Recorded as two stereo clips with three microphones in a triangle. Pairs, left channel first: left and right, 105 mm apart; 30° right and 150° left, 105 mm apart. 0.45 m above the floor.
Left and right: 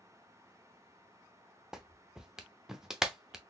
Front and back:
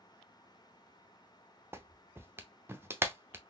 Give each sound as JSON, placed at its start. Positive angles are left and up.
{"t": 1.7, "sound": "a clap", "azimuth_deg": -170, "distance_m": 0.6}